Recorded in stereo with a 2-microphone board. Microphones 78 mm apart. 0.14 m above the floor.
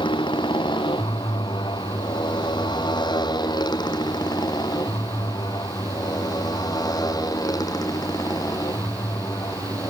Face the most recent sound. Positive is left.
turn(degrees=45)  # may be behind; listen again after turning